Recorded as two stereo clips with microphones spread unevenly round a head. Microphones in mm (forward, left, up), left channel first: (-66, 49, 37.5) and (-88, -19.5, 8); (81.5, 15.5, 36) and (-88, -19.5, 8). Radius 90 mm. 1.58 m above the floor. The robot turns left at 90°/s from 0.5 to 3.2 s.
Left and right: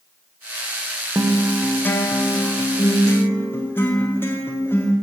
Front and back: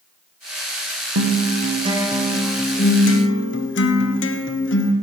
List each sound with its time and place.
1.1 s a guitar: 170° right, 0.9 m; by 4.9 s 5° left, 0.9 m